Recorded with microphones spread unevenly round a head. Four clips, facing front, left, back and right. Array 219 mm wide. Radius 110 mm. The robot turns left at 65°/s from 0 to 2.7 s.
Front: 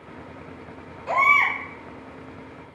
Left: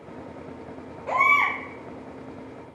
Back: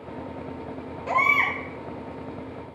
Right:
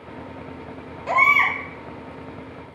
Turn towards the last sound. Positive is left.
turn(degrees=145)